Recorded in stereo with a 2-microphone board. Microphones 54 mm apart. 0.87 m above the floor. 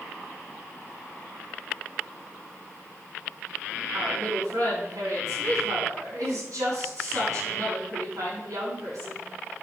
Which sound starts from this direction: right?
A woman speaking, at 3.9 s.